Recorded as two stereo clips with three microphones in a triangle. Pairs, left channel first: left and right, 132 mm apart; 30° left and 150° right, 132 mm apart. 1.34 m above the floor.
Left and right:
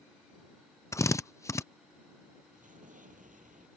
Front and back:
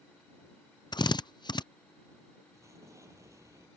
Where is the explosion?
85° right.